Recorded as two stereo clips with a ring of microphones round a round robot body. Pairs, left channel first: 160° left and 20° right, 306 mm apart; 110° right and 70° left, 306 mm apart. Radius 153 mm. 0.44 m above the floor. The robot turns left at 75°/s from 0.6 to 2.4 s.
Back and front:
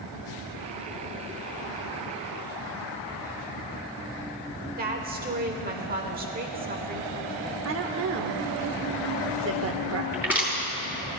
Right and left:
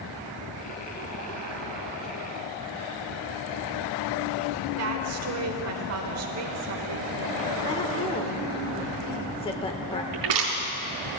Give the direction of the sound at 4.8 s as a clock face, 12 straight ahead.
11 o'clock.